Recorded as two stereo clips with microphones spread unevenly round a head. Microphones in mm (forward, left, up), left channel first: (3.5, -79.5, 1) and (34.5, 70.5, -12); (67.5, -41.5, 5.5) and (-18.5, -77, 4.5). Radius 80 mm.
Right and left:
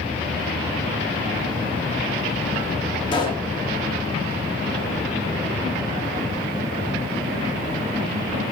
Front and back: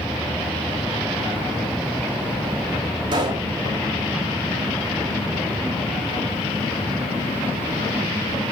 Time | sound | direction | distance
3.1 | a pop | 150° right | 1.7 m